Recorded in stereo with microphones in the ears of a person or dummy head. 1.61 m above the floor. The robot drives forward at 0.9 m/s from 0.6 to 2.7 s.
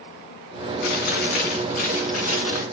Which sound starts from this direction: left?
Chewing, at 0.8 s.